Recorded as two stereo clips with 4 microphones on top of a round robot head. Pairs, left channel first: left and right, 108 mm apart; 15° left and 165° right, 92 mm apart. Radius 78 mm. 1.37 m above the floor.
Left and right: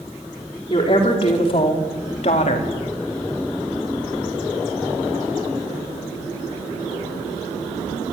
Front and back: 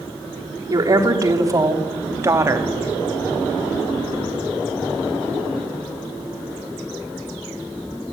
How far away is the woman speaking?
About 3 m.